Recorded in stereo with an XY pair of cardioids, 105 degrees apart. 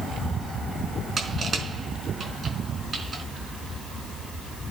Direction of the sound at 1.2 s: 40° right.